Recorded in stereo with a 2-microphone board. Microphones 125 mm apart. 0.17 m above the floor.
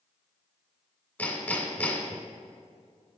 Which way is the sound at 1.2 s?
15° left (ahead or behind).